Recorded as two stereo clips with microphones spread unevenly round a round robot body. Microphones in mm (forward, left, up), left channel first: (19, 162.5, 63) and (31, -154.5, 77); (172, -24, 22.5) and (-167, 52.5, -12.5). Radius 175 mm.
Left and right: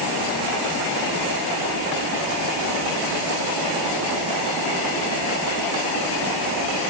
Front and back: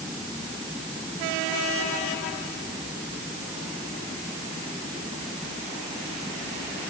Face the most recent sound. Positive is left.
No sound to turn to.